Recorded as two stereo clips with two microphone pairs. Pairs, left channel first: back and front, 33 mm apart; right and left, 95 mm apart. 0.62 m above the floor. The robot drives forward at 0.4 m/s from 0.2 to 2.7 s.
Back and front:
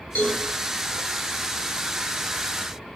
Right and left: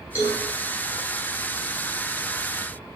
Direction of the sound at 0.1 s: 145° right.